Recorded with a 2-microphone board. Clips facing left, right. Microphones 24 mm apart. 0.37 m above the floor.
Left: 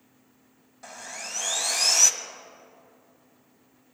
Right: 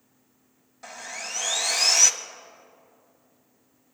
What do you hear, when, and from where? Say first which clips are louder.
0.8 s sawing: right 2 dB; 10° right (ahead or behind), 0.5 m